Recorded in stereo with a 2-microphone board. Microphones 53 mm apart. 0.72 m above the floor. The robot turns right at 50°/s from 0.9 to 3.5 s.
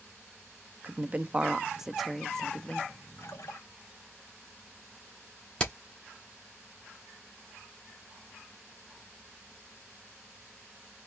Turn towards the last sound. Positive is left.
turn(degrees=20)  # may be behind; listen again after turning